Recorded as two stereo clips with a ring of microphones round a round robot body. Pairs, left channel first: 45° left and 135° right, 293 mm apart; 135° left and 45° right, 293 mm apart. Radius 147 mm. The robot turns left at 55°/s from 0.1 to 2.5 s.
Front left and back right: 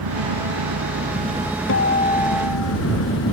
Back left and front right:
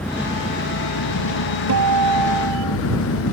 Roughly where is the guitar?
Ahead.